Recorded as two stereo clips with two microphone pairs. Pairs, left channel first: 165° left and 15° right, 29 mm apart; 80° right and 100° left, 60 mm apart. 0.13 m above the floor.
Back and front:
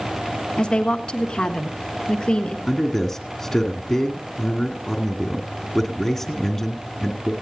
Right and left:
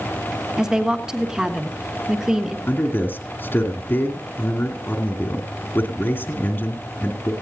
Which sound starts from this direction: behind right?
A man speaking, at 2.7 s.